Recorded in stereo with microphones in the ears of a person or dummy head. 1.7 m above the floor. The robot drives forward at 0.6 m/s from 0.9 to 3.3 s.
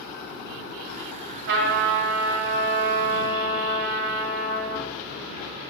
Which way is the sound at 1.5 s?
70° right (ahead or behind).